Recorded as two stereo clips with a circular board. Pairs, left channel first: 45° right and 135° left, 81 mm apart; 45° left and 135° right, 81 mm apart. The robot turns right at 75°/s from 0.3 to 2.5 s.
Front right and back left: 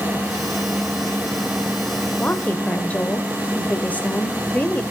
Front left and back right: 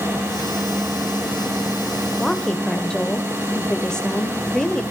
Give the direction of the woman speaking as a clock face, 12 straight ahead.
2 o'clock.